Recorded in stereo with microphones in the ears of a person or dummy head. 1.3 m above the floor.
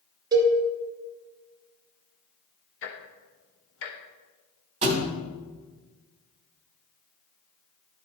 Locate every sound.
0.3 s a cowbell: 25° right (ahead or behind), 1.6 m
2.8 s ticking: 75° left (ahead or behind), 1.2 m
4.8 s a thud: 35° right (ahead or behind), 1.3 m